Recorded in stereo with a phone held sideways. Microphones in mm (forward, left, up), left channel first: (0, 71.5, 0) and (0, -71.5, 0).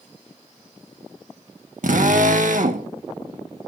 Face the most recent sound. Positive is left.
turn(degrees=-70)  # may be behind; listen again after turning